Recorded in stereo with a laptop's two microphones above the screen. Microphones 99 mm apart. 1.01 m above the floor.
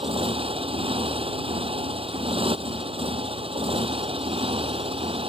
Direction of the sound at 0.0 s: 65° right (ahead or behind).